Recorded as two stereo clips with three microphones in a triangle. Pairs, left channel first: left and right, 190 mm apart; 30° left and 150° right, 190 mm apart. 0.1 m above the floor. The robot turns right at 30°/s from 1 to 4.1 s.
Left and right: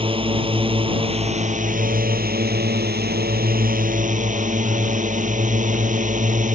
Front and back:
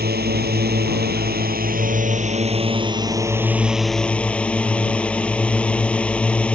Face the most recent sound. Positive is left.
turn(degrees=-55)